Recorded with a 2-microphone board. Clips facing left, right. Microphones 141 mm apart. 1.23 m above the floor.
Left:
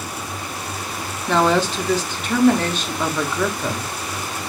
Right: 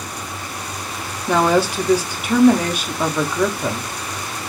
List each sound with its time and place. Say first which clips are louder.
1.3 s a woman speaking: right 1 dB; 10° right (ahead or behind), 0.5 m